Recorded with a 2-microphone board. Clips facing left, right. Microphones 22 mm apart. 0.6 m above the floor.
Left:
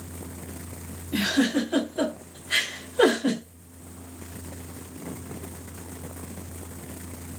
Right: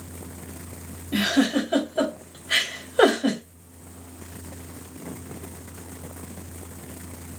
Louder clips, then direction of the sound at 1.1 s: Right 2 dB; 80° right.